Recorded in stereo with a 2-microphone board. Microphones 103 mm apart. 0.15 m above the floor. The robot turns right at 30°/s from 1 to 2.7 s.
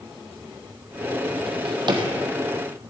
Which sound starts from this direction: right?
A drawer, at 1.5 s.